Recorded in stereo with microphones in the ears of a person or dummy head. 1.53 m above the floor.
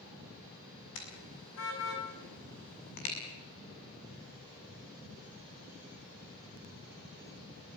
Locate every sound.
0.9 s a car horn: 80° left, 7 m; by 3.1 s 70° left (ahead or behind), 6 m